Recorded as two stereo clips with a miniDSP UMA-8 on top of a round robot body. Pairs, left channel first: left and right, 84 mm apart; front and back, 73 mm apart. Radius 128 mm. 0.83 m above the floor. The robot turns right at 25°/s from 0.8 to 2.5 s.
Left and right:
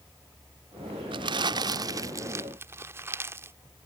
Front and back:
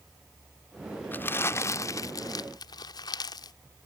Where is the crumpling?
60° right; by 3.6 s 25° right.